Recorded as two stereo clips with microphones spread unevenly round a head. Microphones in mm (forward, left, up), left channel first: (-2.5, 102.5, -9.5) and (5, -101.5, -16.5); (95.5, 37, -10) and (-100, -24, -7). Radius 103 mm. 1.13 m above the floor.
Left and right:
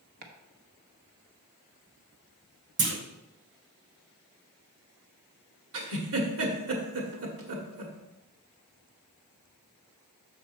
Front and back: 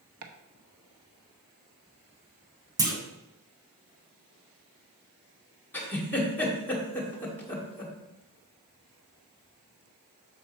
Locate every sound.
0.2 s chopping: 135° right, 1.0 m
2.8 s a clunk: 90° right, 1.1 m
5.7 s a giggle: 65° right, 1.5 m